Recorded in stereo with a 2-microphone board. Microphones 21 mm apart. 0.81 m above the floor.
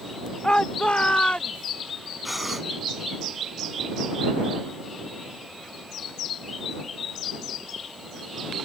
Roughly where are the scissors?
No scissors in this recording.